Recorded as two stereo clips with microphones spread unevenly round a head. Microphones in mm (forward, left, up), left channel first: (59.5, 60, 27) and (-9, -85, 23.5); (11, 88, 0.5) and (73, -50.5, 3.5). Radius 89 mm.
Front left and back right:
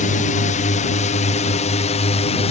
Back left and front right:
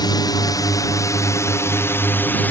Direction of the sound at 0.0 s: 65° left.